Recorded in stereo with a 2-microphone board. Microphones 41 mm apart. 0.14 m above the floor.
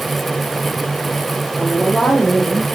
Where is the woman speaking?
10° left (ahead or behind), 4.5 m.